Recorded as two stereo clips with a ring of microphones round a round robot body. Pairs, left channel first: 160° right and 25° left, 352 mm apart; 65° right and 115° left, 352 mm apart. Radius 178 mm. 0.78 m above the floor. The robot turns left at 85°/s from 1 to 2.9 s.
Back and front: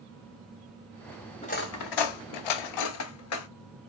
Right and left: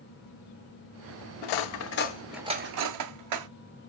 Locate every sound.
1.4 s cutlery clinking: 80° right, 0.6 m; by 3.5 s 155° left, 0.6 m